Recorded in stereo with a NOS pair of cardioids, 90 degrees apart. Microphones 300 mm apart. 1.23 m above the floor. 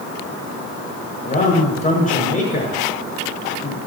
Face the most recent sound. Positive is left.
turn(degrees=25)